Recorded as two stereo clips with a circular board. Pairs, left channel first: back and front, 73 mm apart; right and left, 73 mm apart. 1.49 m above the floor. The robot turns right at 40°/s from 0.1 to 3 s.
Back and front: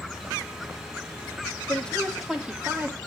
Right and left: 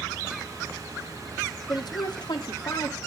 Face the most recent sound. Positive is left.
turn(degrees=-60)